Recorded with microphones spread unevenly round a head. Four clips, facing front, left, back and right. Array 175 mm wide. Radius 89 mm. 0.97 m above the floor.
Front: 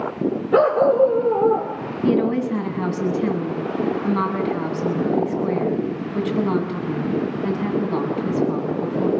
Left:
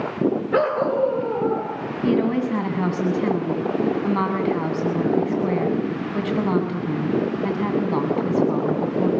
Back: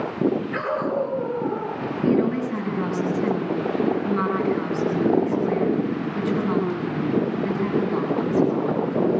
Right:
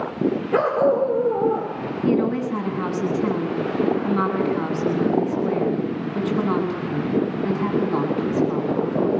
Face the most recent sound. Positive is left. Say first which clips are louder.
# even, front 2 dB
turn(degrees=60)